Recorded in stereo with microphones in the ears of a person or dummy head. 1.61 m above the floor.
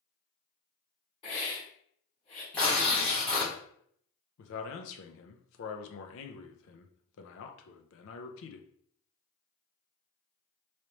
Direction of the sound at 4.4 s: 70° left (ahead or behind).